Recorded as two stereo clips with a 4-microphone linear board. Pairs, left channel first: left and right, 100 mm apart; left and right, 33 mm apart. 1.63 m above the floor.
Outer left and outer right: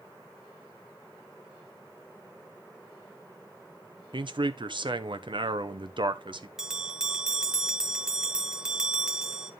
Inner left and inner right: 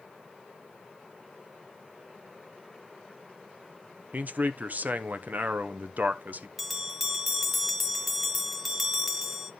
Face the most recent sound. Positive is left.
turn(degrees=-5)  # may be behind; listen again after turning